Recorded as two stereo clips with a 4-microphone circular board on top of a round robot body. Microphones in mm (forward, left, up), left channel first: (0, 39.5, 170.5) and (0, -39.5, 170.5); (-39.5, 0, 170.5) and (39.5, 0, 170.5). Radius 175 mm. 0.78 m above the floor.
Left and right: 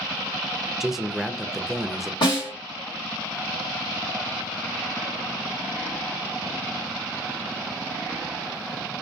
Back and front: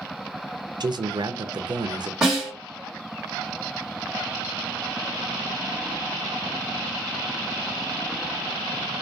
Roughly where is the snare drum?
Left.